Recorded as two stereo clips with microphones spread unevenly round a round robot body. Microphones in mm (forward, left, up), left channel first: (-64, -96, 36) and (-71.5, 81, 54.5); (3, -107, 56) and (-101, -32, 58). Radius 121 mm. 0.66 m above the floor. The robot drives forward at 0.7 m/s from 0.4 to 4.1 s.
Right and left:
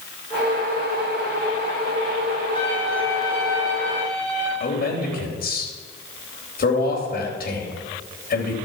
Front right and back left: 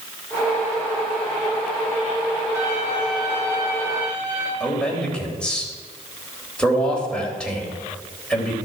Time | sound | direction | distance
2.5 | a violin | 150° right | 5 m
4.6 | a man speaking | 120° right | 3.5 m